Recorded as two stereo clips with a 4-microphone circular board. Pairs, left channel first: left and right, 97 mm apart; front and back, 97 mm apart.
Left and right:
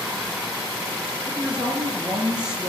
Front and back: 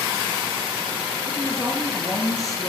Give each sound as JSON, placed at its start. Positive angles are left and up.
{"t": 1.3, "sound": "a woman speaking", "azimuth_deg": -15, "distance_m": 1.9}